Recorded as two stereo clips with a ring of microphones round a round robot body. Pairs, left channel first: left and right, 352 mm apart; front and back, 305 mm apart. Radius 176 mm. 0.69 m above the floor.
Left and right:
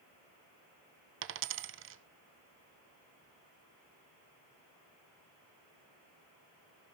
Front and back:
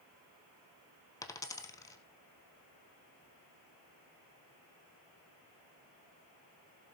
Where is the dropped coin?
70° right, 0.6 m.